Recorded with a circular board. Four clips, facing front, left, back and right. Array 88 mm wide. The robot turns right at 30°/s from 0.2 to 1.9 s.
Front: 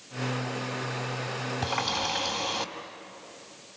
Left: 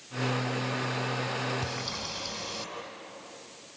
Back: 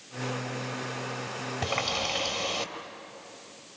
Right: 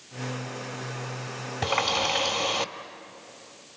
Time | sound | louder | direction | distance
1.6 | a running tap | right 10 dB, even | 115° right | 2 m